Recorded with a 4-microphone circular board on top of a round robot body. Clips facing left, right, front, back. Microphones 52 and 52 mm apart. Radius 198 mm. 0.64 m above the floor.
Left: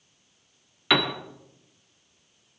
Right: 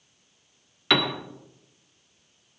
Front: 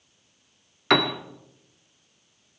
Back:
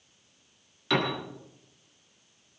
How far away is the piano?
About 1.8 m.